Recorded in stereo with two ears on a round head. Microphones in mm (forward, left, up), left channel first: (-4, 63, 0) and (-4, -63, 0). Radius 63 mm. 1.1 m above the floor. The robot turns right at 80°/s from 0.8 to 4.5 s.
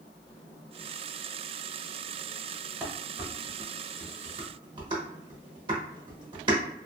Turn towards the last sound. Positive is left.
turn(degrees=-35)  # may be behind; listen again after turning